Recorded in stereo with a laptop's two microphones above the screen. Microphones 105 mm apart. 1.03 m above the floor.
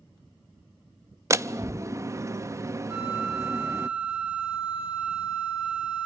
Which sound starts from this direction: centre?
A flute, at 2.9 s.